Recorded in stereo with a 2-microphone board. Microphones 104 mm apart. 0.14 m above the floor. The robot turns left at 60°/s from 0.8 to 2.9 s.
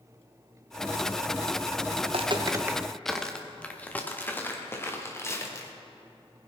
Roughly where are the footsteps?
Right.